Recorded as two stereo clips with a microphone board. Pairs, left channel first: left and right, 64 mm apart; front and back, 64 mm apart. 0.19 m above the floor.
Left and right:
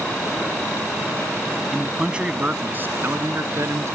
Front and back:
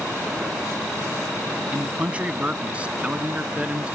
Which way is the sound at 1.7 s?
170° right.